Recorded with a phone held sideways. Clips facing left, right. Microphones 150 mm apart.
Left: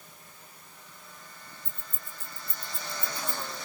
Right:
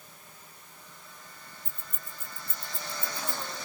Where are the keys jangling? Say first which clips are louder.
Even; 80° right, 2.5 m; by 3.5 s 15° right (ahead or behind), 2.5 m.